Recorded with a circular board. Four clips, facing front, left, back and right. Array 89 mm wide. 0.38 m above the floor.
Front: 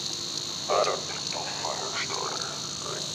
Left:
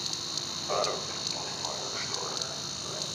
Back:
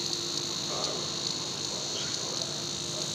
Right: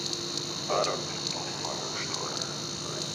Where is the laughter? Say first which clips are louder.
Right 2 dB, front 13 dB; 10° right, 1.7 m; by 3.0 s 5° right, 5 m.